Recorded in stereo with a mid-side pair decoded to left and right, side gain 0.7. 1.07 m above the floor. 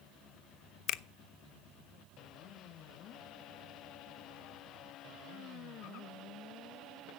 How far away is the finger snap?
About 0.5 m.